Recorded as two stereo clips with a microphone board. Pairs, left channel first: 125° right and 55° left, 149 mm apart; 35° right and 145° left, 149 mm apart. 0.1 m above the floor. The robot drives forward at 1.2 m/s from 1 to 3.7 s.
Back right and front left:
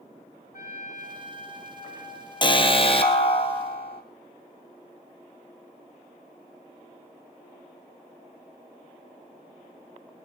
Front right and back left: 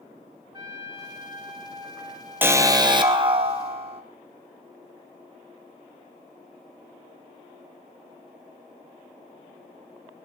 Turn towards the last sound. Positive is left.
turn(degrees=-170)